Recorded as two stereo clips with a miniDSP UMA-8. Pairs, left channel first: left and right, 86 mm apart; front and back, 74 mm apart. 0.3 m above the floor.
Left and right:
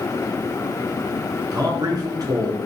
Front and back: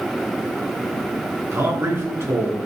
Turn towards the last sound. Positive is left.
turn(degrees=-130)